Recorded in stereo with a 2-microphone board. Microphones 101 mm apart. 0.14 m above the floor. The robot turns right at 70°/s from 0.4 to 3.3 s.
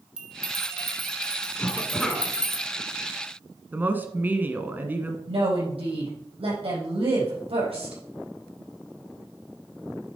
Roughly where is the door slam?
No door slam in this recording.